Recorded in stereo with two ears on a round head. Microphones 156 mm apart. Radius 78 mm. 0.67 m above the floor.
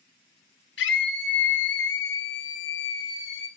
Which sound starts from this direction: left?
A scream, at 0.8 s.